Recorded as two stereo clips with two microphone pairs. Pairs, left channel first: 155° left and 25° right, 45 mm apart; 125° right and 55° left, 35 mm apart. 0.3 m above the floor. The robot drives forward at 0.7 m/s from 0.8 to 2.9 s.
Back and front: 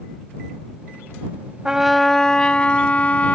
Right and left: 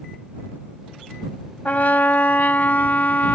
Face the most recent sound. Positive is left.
turn(degrees=-150)